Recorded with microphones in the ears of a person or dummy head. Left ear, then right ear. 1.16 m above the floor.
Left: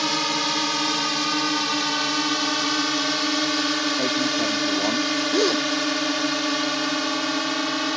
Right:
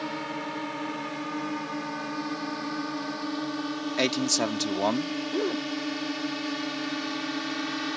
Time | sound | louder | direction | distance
0.0 | a drone | left 11 dB | 80° left | ?
4.0 | a man speaking | left 3 dB | 60° right (ahead or behind) | ?
5.3 | a gasp | left 8 dB | 85° left | ?